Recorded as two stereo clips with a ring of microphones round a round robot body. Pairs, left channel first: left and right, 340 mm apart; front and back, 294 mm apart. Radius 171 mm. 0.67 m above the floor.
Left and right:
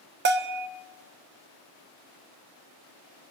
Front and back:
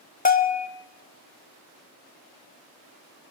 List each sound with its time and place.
0.2 s a bell: 50° right, 1.1 m